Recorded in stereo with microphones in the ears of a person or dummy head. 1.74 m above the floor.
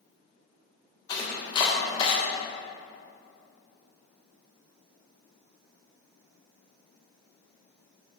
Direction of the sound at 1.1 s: 20° left (ahead or behind).